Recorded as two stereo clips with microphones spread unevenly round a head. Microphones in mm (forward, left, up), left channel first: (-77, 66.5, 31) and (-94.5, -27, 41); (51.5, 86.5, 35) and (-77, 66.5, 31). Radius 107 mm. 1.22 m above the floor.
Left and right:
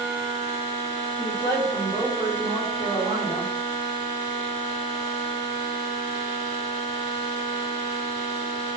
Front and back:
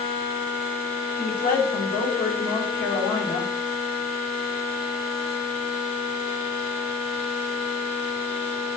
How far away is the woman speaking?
About 4.5 m.